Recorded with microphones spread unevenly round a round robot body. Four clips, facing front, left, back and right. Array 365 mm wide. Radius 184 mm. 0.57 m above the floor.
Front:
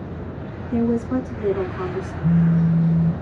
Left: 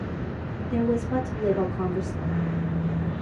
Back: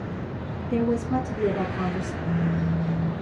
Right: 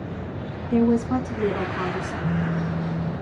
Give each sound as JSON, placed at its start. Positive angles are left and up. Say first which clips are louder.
{"t": 0.7, "sound": "a woman speaking", "louder": "right 5 dB, front 3 dB", "azimuth_deg": -130, "distance_m": 4.5}
{"t": 2.2, "sound": "a phone buzzing", "louder": "right 3 dB, front 9 dB", "azimuth_deg": -25, "distance_m": 0.7}